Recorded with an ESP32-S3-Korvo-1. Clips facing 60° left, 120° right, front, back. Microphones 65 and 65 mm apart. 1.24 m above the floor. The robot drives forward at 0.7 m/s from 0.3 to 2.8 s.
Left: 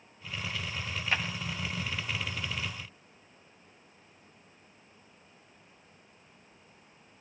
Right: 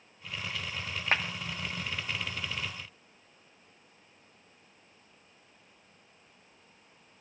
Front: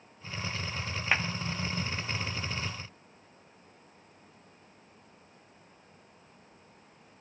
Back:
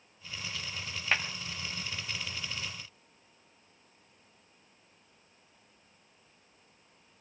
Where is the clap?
75° right, 2 m; by 1.3 s 80° right, 2 m.